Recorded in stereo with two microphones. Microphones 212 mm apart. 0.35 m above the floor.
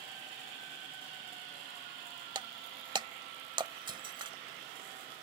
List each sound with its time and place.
2.4 s breaking glass: 20° right (ahead or behind)